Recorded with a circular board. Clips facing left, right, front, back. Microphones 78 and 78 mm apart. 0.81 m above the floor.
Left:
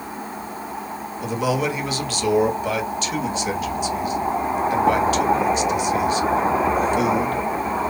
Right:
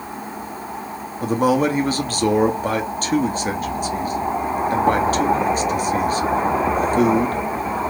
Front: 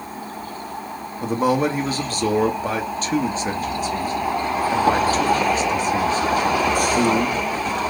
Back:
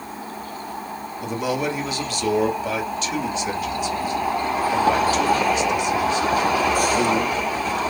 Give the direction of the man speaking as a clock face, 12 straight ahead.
2 o'clock.